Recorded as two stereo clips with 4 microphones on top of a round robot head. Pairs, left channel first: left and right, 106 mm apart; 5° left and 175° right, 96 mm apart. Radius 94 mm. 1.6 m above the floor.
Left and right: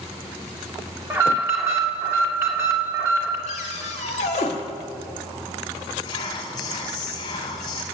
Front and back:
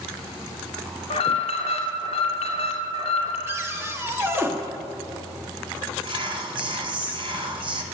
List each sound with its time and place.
1.1 s an alarm: 25° right, 2.5 m
3.5 s a cupboard door: 125° left, 1.3 m
6.0 s whispering: 150° left, 2 m